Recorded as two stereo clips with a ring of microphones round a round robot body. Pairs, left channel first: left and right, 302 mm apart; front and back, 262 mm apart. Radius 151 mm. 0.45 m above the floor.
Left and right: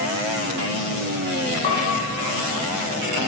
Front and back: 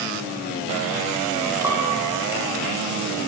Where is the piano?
100° left, 4 m.